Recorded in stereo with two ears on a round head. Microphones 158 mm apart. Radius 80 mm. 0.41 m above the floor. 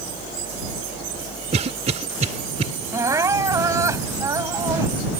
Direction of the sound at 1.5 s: 35° right (ahead or behind).